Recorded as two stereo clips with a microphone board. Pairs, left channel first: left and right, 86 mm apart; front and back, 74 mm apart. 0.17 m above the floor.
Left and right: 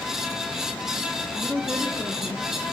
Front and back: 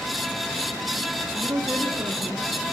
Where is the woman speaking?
160° left, 2.5 m; by 2.5 s 140° left, 3 m.